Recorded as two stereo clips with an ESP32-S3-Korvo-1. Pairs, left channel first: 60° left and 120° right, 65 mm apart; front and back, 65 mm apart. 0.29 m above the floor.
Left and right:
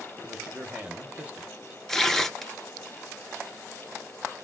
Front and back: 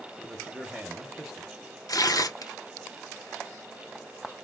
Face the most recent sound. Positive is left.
turn(degrees=-25)